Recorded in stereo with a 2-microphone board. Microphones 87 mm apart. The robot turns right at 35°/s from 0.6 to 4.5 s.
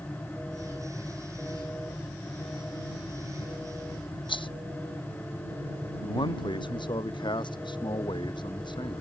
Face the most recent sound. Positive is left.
turn(degrees=65)  # may be behind; listen again after turning